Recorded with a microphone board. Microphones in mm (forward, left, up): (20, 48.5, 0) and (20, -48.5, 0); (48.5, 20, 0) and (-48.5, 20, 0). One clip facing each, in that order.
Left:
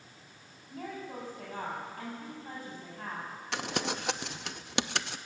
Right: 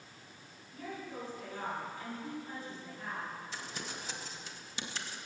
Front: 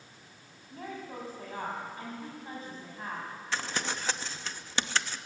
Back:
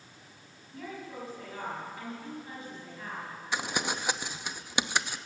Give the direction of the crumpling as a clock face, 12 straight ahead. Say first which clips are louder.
Left 10 dB, back 2 dB; 9 o'clock.